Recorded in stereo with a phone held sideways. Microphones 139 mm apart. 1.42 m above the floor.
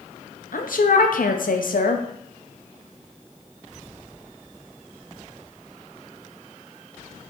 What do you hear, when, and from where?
0.5 s a woman speaking: 75° left (ahead or behind), 0.6 m